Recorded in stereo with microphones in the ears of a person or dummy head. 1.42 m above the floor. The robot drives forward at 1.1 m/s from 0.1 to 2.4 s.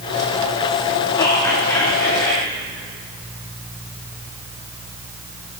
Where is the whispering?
15° left (ahead or behind), 3.5 m; by 2.5 s 10° left (ahead or behind), 5 m.